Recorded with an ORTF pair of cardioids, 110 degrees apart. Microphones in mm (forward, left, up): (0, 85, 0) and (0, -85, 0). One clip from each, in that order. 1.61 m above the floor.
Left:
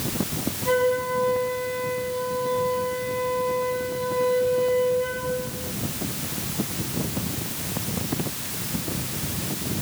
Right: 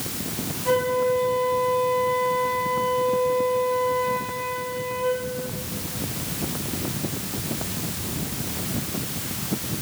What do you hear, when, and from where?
0.7 s a flute: straight ahead, 4 m